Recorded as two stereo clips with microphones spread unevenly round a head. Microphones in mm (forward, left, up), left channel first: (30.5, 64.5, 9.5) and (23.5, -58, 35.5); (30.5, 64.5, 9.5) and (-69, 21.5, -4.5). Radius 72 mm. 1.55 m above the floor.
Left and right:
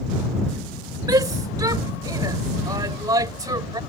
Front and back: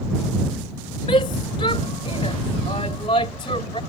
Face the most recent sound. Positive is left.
turn(degrees=-35)